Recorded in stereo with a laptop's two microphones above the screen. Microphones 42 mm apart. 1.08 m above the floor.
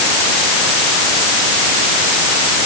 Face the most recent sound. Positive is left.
No sound to turn to.